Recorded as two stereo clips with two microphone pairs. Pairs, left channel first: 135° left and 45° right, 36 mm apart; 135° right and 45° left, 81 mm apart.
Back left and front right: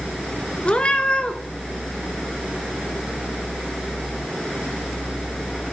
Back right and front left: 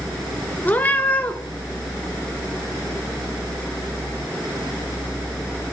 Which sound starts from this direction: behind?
A cat meowing, at 0.7 s.